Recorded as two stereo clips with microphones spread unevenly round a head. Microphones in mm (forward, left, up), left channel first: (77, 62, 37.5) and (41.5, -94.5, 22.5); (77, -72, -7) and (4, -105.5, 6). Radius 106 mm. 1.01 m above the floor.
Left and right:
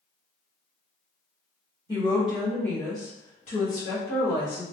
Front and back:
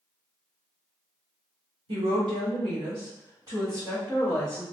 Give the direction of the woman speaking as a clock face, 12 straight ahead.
6 o'clock.